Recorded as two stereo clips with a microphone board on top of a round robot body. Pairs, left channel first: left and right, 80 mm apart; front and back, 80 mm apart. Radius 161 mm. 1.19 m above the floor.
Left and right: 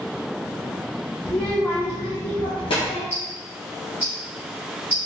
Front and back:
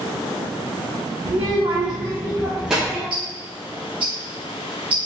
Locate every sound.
1.2 s a child speaking: 175° right, 0.8 m; by 3.0 s 90° left, 1.0 m
3.1 s ticking: 165° right, 2 m